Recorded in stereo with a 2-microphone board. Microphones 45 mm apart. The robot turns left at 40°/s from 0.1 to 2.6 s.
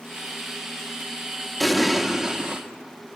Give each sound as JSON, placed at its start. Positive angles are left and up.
{"t": 1.6, "sound": "an explosion", "azimuth_deg": 5, "distance_m": 1.0}